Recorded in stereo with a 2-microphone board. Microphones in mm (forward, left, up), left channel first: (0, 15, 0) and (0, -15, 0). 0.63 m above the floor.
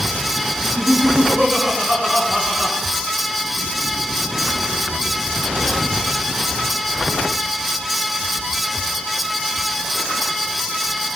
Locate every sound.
0.6 s laughter: 15° right (ahead or behind), 5.5 m; by 2.8 s 25° right (ahead or behind), 7.5 m